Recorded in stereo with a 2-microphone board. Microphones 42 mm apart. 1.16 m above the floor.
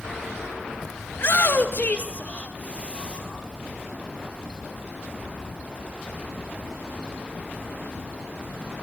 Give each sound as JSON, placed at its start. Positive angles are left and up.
{"t": 1.1, "sound": "a shout", "side_deg": 55, "distance_m": 2.0}